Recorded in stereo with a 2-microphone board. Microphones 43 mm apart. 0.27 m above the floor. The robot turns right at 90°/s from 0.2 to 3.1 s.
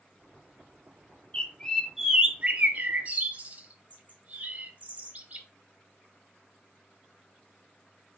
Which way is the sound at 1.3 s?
25° left (ahead or behind).